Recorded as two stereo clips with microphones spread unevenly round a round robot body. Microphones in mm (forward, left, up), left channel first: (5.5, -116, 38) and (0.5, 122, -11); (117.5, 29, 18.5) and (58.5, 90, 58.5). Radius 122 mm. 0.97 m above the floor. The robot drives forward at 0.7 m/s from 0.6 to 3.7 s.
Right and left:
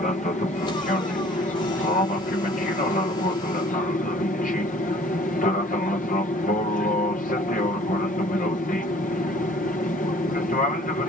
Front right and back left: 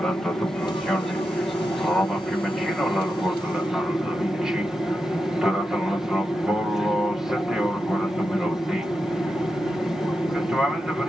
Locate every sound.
0.0 s an aircraft: 35° right; by 11.1 s 60° right